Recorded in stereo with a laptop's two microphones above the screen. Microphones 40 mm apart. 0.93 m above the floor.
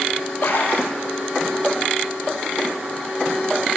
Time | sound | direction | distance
0.4 | a splash | 75° left (ahead or behind) | 9.5 m